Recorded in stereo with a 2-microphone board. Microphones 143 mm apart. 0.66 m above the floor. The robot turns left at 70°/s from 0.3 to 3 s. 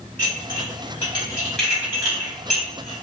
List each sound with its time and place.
0.2 s dishes clattering: 70° left (ahead or behind), 1.3 m; by 2.9 s 70° right (ahead or behind), 1.3 m